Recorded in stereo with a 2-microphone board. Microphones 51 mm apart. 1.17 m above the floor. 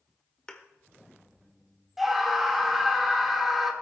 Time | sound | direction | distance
0.5 | a thud | 15° left (ahead or behind) | 1.2 m
2.0 | a scream | centre (ahead or behind) | 2 m